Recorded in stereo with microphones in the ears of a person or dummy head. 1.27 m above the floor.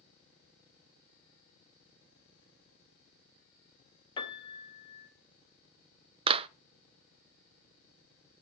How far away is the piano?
About 2 m.